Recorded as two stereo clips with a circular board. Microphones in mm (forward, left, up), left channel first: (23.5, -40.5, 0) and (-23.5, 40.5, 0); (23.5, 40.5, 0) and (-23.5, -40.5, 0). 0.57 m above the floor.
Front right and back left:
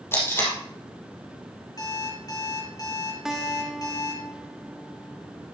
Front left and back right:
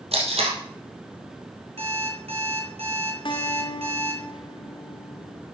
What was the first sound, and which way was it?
Tape being pulled, 125° right.